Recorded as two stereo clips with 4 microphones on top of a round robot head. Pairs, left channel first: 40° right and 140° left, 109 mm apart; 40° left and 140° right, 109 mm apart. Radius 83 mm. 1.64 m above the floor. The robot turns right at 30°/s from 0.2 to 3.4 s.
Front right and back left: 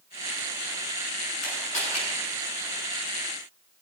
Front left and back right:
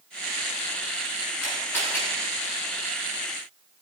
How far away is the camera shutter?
About 9 m.